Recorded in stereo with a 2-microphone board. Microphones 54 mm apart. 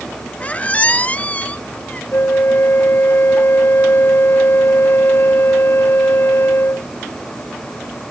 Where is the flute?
50° left (ahead or behind).